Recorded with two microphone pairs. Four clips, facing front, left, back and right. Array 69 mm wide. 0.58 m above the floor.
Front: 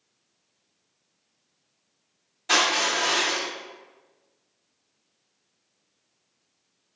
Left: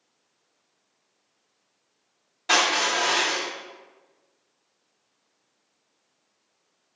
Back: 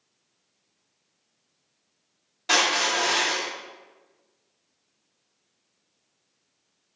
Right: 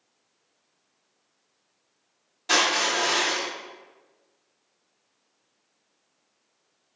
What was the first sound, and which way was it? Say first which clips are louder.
Crushing: left 1 dB, even; 130° left.